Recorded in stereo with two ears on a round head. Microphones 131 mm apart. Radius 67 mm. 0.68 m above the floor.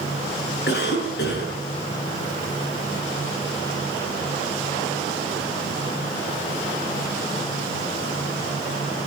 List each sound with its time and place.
0.7 s a cough: 75° left (ahead or behind), 7 m